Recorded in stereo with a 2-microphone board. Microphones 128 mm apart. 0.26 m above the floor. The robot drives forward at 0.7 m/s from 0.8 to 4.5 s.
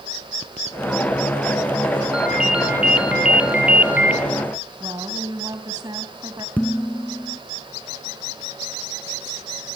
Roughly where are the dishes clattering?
Centre.